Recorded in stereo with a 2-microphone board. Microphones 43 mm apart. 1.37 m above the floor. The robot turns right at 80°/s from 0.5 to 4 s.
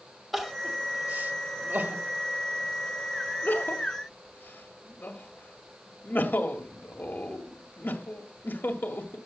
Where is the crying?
5° right (ahead or behind), 1.8 m; by 9.2 s 55° left (ahead or behind), 1.8 m.